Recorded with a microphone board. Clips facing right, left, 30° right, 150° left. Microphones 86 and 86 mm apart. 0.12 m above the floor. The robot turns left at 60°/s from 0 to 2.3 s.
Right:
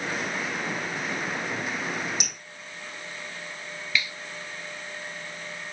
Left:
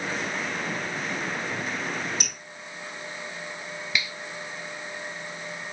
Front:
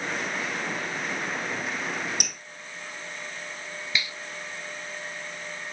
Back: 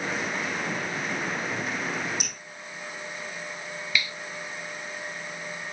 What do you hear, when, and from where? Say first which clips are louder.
2.2 s dripping: left 1 dB, front 1 dB; 15° right, 3 m; by 2.3 s 25° right, 3 m
3.9 s a finger snap: right 1 dB, back 2 dB; 25° left, 1.4 m